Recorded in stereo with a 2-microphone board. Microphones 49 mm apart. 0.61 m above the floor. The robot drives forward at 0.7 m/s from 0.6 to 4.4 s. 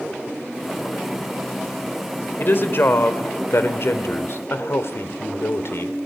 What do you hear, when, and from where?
2.4 s a woman speaking: 50° left (ahead or behind), 2.5 m; by 6.0 s 65° left (ahead or behind), 2 m